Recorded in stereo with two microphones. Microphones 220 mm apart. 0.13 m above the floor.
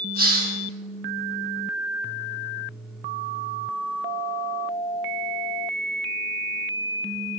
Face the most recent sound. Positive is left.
turn(degrees=-45)  # may be behind; listen again after turning